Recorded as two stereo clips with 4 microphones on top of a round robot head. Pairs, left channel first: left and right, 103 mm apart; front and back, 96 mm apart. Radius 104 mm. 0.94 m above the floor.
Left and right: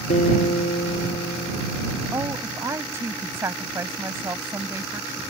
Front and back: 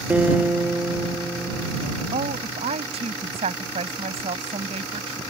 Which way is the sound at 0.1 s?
110° left.